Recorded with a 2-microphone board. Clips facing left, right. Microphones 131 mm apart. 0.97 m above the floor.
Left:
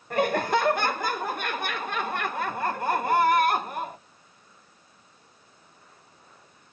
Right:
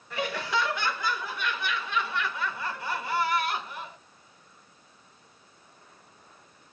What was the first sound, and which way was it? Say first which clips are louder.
Laughter: left 7 dB; 50° left (ahead or behind).